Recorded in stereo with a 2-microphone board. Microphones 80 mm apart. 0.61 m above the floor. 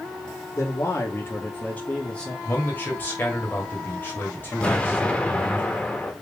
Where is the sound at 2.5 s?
25° left (ahead or behind), 1.5 m.